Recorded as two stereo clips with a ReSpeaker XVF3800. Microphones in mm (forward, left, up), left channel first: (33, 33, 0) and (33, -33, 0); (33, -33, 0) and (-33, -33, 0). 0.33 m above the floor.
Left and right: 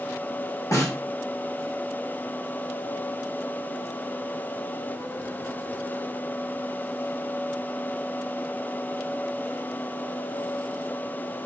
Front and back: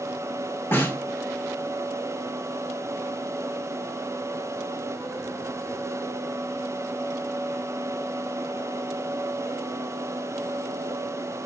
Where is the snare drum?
55° left, 5 m.